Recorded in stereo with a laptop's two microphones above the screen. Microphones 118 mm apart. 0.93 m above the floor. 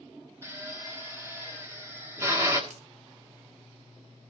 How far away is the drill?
About 1.7 m.